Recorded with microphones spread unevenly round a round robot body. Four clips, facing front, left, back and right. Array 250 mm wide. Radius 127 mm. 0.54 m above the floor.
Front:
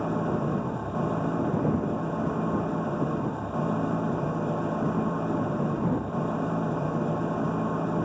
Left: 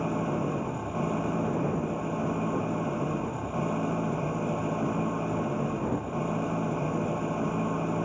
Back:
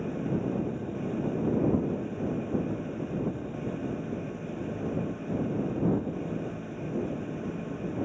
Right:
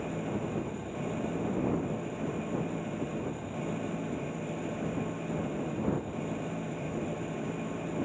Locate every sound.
0.0 s an engine running: 25° left